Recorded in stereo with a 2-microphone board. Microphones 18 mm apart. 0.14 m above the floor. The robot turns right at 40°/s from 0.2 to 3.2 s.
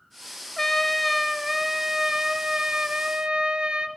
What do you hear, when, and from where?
0.6 s a trumpet: 155° left, 1.3 m; by 3.9 s 95° right, 1.3 m